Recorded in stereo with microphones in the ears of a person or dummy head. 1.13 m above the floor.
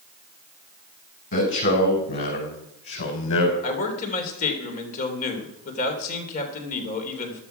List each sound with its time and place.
1.3 s a man speaking: 60° left (ahead or behind), 5 m
3.6 s a man speaking: 50° left (ahead or behind), 3 m